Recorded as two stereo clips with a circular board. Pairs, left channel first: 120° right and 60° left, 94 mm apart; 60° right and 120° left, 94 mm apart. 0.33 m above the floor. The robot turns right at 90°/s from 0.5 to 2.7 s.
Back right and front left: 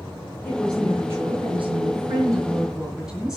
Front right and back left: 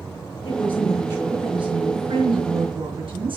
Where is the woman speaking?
55° right, 4.5 m; by 3.4 s 140° left, 4.5 m.